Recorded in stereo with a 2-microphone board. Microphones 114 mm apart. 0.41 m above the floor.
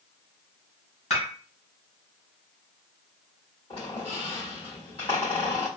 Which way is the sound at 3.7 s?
50° left (ahead or behind).